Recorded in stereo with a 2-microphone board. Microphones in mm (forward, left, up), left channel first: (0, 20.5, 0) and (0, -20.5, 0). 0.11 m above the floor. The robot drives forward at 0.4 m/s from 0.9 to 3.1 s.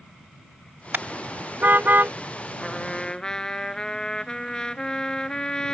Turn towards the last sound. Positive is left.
turn(degrees=20)  # may be behind; listen again after turning